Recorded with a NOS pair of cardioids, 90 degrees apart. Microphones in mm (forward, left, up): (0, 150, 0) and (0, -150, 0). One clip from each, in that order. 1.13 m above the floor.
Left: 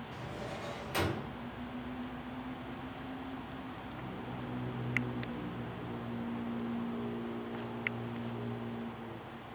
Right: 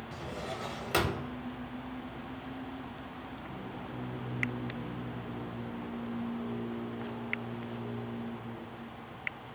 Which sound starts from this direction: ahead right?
A drawer, at 0.1 s.